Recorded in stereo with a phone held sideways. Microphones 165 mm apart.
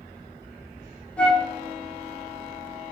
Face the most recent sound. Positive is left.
turn(degrees=5)  # may be behind; listen again after turning